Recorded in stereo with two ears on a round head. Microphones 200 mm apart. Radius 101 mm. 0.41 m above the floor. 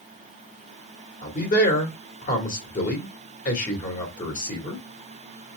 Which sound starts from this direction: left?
A man speaking, at 1.2 s.